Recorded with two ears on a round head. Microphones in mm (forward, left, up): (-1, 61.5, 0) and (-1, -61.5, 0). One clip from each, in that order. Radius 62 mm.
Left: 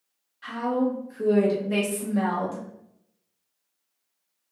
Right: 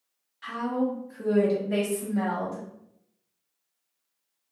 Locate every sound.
0.4 s a woman speaking: 20° right (ahead or behind), 0.9 m; by 2.7 s 40° left (ahead or behind), 0.9 m